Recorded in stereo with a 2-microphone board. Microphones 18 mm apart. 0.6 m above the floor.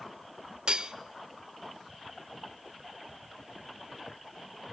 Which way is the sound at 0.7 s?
45° right (ahead or behind).